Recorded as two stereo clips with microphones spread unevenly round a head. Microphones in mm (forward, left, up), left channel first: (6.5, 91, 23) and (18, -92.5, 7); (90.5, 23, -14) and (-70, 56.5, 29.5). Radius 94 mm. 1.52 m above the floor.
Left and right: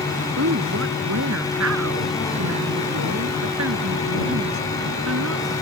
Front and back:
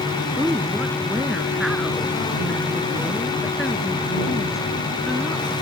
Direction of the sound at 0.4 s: 105° right.